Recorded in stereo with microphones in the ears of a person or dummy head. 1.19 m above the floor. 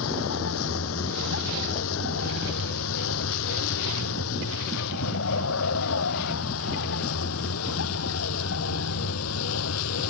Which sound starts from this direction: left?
A vehicle, at 0.0 s.